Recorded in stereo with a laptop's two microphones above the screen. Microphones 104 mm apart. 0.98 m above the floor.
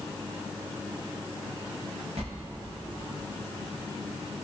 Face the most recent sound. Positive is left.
turn(degrees=-75)  # may be behind; listen again after turning